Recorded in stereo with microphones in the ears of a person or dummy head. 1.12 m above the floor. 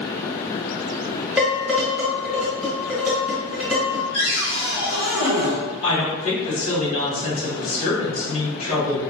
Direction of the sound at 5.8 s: 30° left (ahead or behind).